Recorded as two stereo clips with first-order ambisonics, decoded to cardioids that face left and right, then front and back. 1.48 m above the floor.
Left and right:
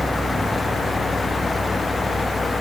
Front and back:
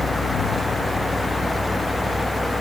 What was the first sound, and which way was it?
Only background noise.